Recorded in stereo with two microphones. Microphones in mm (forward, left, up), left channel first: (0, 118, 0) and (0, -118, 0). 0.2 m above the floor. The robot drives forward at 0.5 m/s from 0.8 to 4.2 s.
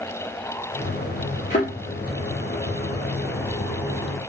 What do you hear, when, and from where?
1.5 s a thud: 35° left (ahead or behind), 2.5 m